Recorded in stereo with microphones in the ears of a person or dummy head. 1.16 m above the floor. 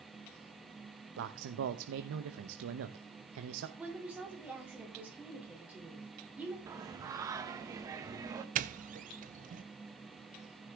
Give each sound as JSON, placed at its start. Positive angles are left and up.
{"t": 1.2, "sound": "a man speaking", "side_deg": -80, "distance_m": 0.8}
{"t": 3.8, "sound": "a woman speaking", "side_deg": -10, "distance_m": 3.0}
{"t": 6.7, "sound": "singing", "side_deg": -15, "distance_m": 0.9}
{"t": 8.6, "sound": "a doorbell", "side_deg": -35, "distance_m": 0.5}